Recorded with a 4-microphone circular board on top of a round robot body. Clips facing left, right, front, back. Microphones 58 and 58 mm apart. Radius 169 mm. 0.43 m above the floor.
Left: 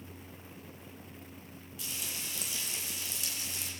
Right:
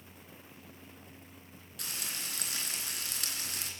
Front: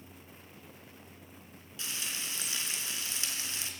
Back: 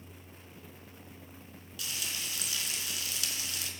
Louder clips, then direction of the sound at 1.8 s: Right 1 dB, even; 65° right.